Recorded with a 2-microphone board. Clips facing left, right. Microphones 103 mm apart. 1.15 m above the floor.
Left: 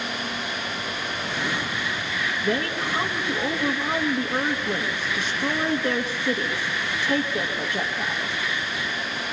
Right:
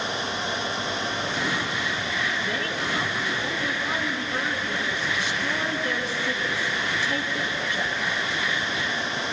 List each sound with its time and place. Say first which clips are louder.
2.4 s a woman speaking: left 3 dB; 40° left (ahead or behind), 2 m